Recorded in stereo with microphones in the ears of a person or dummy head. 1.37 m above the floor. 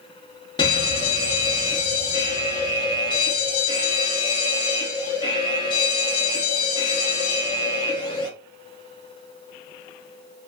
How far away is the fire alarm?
About 0.7 m.